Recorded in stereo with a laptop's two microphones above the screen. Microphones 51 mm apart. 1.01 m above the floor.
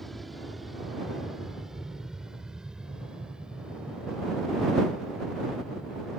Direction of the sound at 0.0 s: 5° left (ahead or behind).